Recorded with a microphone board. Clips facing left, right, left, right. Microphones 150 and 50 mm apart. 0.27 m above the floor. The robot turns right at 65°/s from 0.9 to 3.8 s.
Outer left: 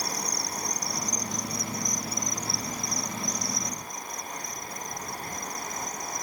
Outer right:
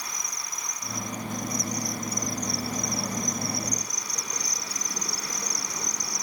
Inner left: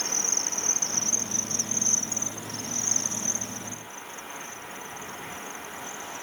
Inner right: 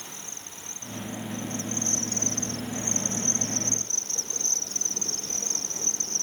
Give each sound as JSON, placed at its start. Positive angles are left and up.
{"t": 0.0, "sound": "an insect", "azimuth_deg": 70}